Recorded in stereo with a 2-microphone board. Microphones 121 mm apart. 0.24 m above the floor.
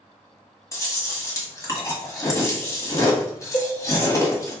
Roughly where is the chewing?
Left.